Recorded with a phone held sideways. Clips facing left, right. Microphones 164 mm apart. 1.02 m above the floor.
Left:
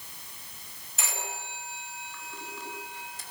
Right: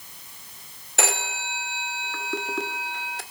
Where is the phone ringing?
75° right (ahead or behind), 2 m.